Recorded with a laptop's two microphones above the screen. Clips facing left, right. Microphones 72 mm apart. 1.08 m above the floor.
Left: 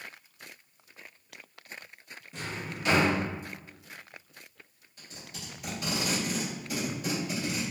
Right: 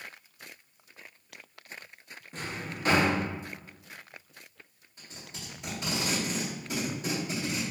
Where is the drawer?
40° right (ahead or behind), 0.6 m.